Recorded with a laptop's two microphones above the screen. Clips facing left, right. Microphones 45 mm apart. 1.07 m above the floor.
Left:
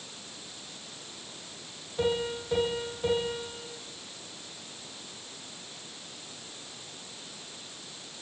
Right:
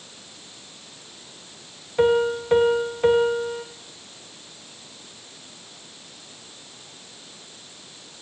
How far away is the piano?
About 1.5 m.